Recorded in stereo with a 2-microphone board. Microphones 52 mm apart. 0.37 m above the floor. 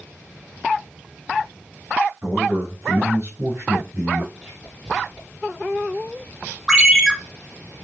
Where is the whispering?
15° right (ahead or behind), 3 m.